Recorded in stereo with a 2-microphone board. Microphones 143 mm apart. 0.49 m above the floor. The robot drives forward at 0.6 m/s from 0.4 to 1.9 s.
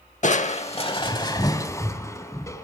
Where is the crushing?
60° left (ahead or behind), 0.6 m; by 2.7 s 20° left (ahead or behind), 1.3 m.